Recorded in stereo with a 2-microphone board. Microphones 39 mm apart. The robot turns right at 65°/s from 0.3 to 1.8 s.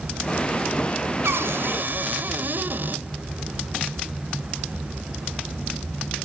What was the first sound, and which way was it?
A cupboard door, 90° right.